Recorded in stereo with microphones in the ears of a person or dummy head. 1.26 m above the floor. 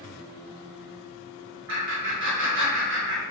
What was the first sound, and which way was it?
Laughter, 65° right (ahead or behind).